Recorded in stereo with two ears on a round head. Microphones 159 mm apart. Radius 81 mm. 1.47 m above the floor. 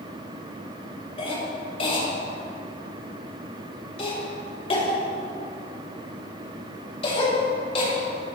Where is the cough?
35° left (ahead or behind), 4.5 m.